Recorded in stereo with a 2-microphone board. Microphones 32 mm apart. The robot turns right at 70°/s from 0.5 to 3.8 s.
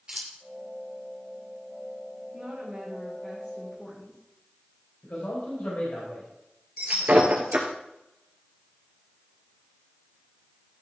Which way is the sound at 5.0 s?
65° left (ahead or behind).